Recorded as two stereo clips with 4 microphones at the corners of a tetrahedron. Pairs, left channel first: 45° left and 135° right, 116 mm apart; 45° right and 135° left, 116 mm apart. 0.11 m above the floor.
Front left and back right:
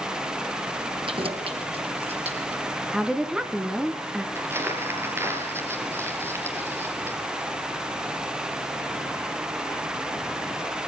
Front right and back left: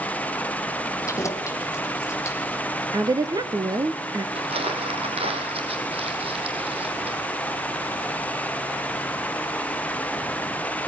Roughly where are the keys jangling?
Right.